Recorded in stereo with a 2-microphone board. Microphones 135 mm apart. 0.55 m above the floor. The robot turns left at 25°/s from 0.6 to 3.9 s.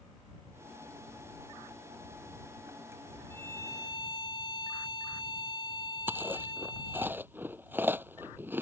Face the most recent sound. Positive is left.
turn(degrees=-15)  # may be behind; listen again after turning